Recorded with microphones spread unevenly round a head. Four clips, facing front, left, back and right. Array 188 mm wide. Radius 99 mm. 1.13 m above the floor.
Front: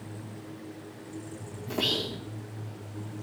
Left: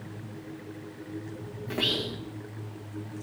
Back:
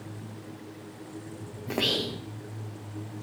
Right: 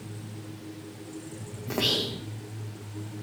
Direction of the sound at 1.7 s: 155° right.